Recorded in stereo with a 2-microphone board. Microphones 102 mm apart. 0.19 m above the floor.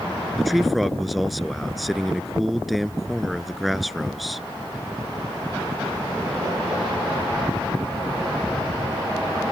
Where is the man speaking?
Centre (ahead or behind).